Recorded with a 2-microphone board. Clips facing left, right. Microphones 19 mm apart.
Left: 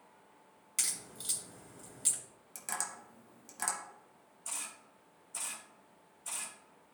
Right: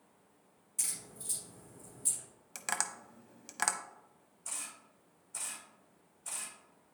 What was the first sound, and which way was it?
A crack, 70° left (ahead or behind).